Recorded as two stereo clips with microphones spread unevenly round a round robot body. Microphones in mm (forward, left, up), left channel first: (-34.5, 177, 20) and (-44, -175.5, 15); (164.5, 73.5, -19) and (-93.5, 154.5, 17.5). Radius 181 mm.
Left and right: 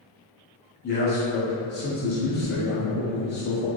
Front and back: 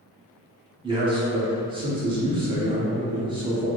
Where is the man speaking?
95° left, 0.8 m.